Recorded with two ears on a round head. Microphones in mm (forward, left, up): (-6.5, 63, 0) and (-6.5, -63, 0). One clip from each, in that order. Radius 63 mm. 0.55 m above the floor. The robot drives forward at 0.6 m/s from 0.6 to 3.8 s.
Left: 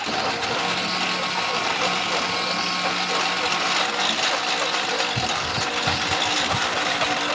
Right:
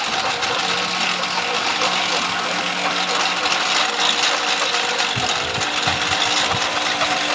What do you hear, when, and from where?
0.0 s a lawn mower: 35° right (ahead or behind); by 7.4 s 20° right (ahead or behind)